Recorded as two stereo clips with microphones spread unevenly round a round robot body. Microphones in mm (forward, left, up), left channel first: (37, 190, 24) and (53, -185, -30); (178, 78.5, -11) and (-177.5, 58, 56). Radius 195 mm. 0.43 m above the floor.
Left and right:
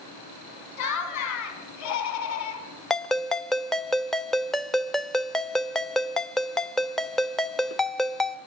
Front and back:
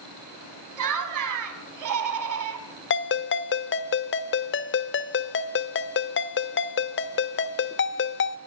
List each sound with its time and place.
0.8 s laughter: 145° left, 4 m
2.9 s a ringtone: 5° right, 0.7 m